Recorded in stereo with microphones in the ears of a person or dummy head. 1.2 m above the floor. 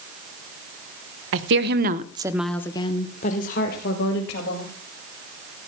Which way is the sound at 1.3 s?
65° right (ahead or behind).